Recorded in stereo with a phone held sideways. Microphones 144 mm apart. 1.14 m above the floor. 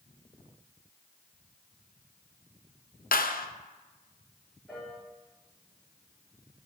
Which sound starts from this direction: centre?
A piano, at 4.7 s.